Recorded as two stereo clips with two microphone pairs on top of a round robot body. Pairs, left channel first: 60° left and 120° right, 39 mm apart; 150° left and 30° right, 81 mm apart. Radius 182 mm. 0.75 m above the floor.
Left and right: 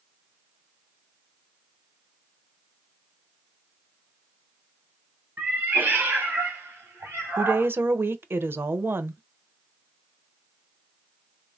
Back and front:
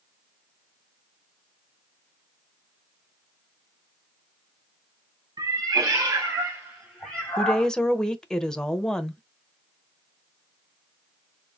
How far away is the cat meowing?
About 1.8 m.